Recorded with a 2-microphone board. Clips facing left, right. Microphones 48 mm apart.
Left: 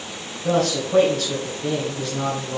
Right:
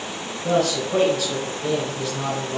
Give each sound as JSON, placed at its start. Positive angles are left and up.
{"t": 0.4, "sound": "a man speaking", "side_deg": -5, "distance_m": 2.5}